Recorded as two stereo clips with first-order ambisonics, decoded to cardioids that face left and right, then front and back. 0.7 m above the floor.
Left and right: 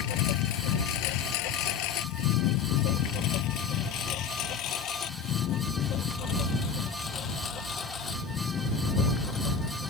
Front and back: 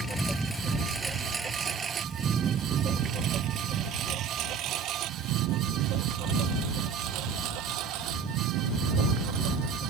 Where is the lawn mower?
90° left; by 9.9 s 160° left.